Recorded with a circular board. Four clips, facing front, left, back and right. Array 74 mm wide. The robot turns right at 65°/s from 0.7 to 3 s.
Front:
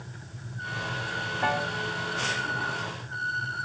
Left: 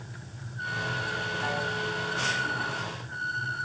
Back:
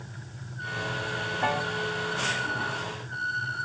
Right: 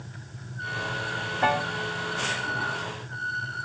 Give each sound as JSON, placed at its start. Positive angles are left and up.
{"t": 1.4, "sound": "a piano", "azimuth_deg": -95, "distance_m": 0.7}